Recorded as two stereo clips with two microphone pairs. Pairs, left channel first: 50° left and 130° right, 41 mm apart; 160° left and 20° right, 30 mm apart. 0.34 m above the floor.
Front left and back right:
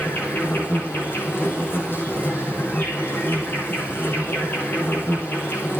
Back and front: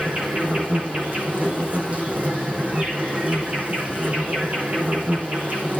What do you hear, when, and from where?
0.0 s an insect: 15° left, 7 m